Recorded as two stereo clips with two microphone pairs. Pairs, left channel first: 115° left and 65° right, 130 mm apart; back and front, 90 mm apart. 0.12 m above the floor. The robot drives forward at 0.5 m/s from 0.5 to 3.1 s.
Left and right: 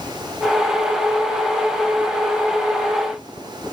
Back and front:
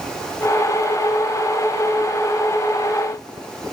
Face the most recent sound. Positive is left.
No sound to turn to.